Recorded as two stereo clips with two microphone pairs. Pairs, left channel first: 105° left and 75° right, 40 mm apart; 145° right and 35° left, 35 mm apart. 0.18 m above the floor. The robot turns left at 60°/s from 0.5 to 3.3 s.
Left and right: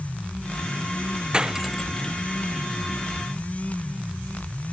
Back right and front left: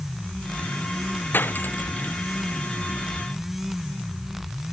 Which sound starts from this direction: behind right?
Cutlery clinking, at 1.3 s.